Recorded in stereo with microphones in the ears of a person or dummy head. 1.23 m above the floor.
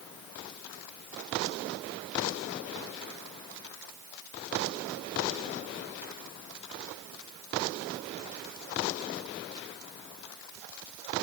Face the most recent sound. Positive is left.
No sound to turn to.